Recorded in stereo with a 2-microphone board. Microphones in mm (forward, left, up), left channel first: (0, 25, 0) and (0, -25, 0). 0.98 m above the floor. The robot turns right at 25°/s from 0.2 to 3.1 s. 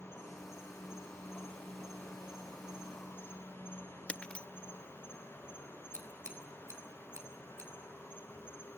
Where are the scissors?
70° right (ahead or behind), 3.5 m.